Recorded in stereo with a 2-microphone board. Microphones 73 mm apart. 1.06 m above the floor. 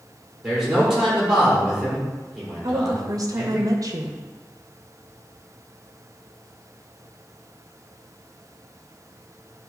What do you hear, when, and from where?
0.4 s a man speaking: 10° right (ahead or behind), 3.5 m
2.6 s a woman speaking: 55° right (ahead or behind), 0.9 m